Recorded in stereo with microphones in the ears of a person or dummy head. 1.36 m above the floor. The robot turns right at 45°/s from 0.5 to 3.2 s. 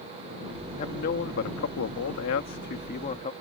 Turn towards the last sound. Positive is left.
turn(degrees=145)